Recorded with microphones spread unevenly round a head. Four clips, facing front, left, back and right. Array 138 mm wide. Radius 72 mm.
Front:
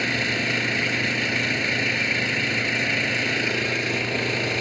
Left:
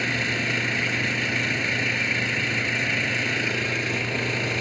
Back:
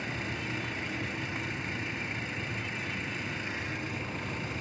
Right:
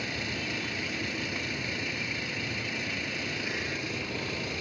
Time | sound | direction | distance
0.0 | an engine running | 25° left | ?